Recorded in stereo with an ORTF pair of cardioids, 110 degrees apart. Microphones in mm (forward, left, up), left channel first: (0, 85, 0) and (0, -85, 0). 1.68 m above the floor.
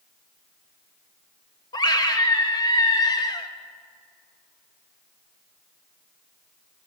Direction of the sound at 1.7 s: 25° left.